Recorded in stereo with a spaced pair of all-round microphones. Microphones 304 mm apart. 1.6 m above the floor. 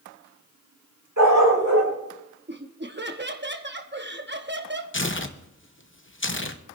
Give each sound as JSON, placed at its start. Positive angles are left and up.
{"t": 1.2, "sound": "a dog barking", "side_deg": -70, "distance_m": 4.5}
{"t": 2.5, "sound": "laughter", "side_deg": -35, "distance_m": 0.8}
{"t": 4.9, "sound": "tearing paper", "side_deg": 40, "distance_m": 0.8}